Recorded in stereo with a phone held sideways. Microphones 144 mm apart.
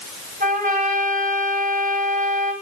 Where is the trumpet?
75° right (ahead or behind), 7.5 m.